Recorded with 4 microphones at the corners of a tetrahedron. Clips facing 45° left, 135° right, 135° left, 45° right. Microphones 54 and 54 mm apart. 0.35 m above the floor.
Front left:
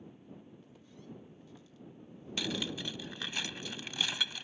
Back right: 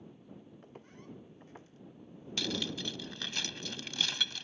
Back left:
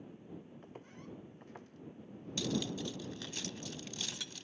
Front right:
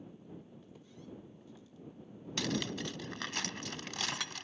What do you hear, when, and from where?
0.6 s footsteps: straight behind; by 3.4 s 160° left
2.4 s cutlery clinking: 35° right